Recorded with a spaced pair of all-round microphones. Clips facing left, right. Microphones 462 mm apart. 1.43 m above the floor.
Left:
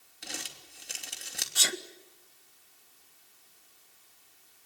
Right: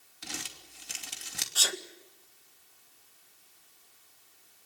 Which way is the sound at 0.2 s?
20° right (ahead or behind).